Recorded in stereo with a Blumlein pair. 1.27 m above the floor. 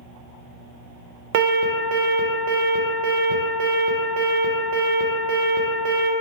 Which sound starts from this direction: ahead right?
An alarm, at 1.3 s.